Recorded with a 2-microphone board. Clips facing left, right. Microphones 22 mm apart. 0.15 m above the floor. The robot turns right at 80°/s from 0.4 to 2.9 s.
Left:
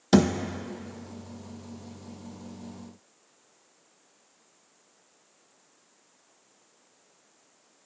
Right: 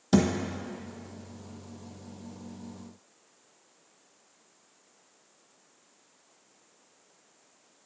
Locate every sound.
0.1 s a thud: 35° left (ahead or behind), 0.7 m